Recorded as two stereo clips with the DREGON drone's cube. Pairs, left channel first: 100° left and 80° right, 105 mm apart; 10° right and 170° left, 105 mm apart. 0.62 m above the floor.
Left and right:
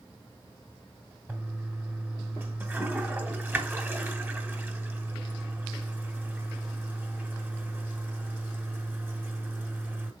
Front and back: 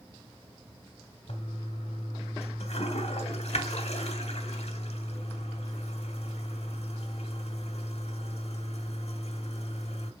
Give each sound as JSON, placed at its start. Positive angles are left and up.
{"t": 1.3, "sound": "a toilet flushing", "azimuth_deg": -10, "distance_m": 1.4}